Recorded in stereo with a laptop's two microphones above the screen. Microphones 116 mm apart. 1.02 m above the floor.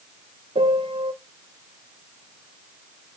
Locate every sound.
0.6 s a piano: 60° right (ahead or behind), 0.7 m